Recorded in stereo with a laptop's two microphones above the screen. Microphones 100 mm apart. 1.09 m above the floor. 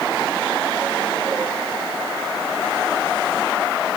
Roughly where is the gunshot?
I don't hear a gunshot.